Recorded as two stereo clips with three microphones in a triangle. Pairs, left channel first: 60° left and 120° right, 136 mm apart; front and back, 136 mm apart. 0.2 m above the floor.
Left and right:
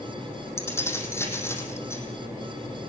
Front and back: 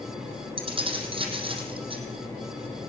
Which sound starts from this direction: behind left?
Keys jangling, at 0.6 s.